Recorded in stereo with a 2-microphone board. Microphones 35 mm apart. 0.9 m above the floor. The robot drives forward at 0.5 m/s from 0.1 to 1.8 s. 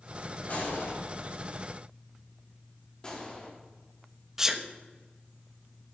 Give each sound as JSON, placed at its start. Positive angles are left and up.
{"t": 0.5, "sound": "a gunshot", "side_deg": 55, "distance_m": 5.0}
{"t": 3.0, "sound": "a gunshot", "side_deg": 25, "distance_m": 2.0}
{"t": 4.4, "sound": "a sneeze", "side_deg": -15, "distance_m": 0.9}